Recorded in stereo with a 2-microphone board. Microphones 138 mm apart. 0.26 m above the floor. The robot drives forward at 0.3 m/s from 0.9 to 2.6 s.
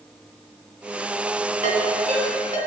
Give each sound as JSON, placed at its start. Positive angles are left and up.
{"t": 1.6, "sound": "a ringtone", "side_deg": -55, "distance_m": 1.5}